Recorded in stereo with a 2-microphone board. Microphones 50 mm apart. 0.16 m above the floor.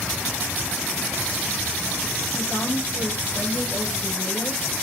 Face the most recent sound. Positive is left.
turn(degrees=70)  # may be behind; listen again after turning